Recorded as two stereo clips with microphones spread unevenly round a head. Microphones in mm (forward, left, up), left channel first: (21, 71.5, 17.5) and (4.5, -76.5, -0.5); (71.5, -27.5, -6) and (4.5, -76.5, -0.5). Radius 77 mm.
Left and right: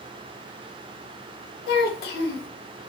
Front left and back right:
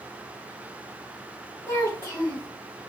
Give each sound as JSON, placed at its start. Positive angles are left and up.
{"t": 1.7, "sound": "a child speaking", "azimuth_deg": 110, "distance_m": 0.9}